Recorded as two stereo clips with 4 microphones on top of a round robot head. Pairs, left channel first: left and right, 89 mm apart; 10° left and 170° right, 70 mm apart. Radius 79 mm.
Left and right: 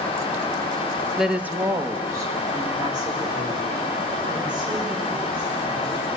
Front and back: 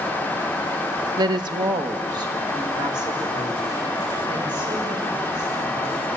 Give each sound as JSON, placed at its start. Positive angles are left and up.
{"t": 1.2, "sound": "a woman speaking", "azimuth_deg": 180, "distance_m": 0.9}